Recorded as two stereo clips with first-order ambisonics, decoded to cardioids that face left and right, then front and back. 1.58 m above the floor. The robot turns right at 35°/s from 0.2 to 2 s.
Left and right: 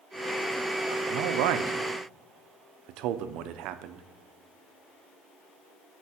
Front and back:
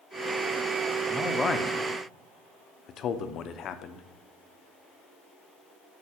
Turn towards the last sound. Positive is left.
turn(degrees=-55)